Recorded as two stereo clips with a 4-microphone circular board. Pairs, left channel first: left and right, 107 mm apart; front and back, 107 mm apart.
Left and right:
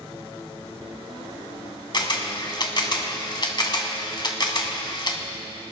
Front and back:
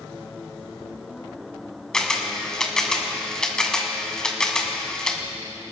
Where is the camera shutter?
80° left, 1.5 m.